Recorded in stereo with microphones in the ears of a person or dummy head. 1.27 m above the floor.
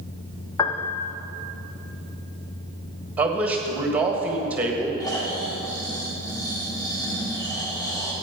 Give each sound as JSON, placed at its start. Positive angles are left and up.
{"t": 0.6, "sound": "a piano", "side_deg": 20, "distance_m": 0.7}
{"t": 3.2, "sound": "a man speaking", "side_deg": -5, "distance_m": 1.5}
{"t": 5.0, "sound": "snoring", "side_deg": 20, "distance_m": 1.8}